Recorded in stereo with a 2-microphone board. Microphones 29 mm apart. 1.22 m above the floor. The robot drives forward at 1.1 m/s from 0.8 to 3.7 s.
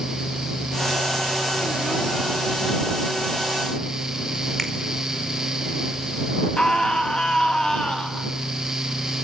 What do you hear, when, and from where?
4.6 s a finger snap: 10° left (ahead or behind), 4.5 m
6.6 s a scream: 30° left (ahead or behind), 2.5 m